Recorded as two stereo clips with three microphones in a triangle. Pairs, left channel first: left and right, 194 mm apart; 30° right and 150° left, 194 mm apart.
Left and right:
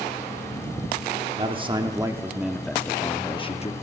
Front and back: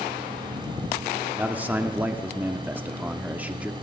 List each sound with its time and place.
1.4 s a man speaking: 130° right, 1.0 m; by 3.7 s 70° left, 0.9 m